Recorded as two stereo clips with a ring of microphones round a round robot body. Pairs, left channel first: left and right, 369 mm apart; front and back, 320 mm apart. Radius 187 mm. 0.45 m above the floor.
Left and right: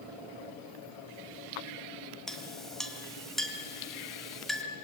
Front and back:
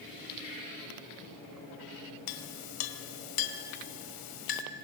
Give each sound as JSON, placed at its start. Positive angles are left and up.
{"t": 2.3, "sound": "a clink", "azimuth_deg": 0, "distance_m": 1.6}